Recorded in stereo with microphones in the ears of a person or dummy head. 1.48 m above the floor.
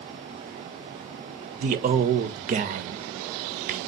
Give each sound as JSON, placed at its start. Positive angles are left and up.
{"t": 1.6, "sound": "a man speaking", "side_deg": -40, "distance_m": 0.5}